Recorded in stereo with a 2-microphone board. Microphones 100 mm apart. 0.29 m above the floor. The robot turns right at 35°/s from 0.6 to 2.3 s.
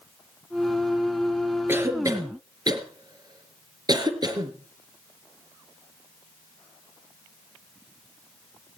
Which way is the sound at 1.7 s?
20° right (ahead or behind).